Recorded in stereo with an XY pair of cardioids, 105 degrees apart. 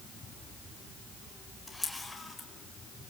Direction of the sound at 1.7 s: 10° left.